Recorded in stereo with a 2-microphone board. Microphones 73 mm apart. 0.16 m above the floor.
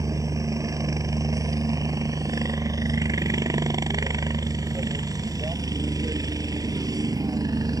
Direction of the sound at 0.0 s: 50° right (ahead or behind).